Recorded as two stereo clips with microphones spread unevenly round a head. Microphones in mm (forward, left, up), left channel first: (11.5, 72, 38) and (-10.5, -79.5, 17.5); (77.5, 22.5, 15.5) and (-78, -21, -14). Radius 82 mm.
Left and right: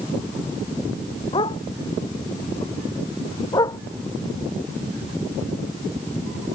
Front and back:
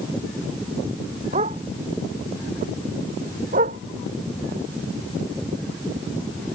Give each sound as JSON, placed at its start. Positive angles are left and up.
{"t": 1.3, "sound": "a dog barking", "azimuth_deg": 145}